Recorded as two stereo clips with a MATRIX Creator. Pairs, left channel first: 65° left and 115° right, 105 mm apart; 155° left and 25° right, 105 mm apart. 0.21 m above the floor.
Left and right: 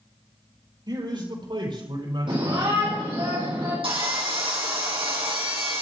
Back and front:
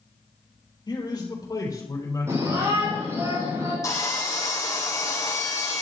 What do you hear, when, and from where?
0.9 s a man speaking: 160° right, 4.5 m; by 3.3 s 140° right, 7 m
2.3 s a shout: 85° right, 7 m
3.8 s sawing: 145° right, 3.5 m